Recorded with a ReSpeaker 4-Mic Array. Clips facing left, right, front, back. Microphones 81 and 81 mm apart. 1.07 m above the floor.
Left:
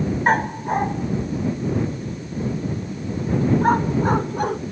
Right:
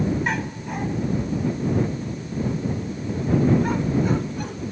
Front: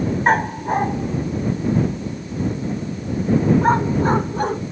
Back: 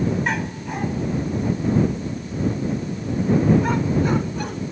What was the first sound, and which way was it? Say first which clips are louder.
A dog barking: left 7 dB, front 8 dB; 45° left.